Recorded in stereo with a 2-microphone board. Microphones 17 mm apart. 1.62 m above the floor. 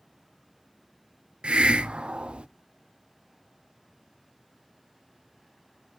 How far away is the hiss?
About 0.5 m.